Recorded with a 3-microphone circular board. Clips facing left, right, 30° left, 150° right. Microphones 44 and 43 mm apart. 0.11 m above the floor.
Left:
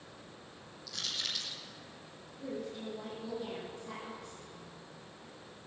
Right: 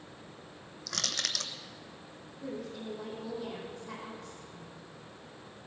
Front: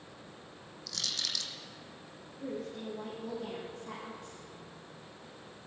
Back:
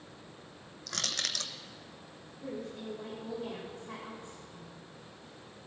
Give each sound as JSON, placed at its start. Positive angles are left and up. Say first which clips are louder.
{"t": 0.9, "sound": "crushing", "louder": "right 3 dB, back 2 dB", "azimuth_deg": -110, "distance_m": 1.0}
{"t": 2.4, "sound": "a woman speaking", "louder": "even, front 1 dB", "azimuth_deg": 10, "distance_m": 5.5}